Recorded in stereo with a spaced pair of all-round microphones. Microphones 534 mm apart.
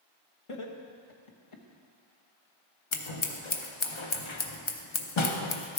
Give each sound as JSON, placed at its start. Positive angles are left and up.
{"t": 0.5, "sound": "laughter", "side_deg": 70, "distance_m": 1.2}
{"t": 2.9, "sound": "scissors", "side_deg": 60, "distance_m": 0.8}